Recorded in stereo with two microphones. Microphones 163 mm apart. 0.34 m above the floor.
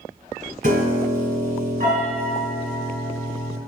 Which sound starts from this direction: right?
A piano, at 0.6 s.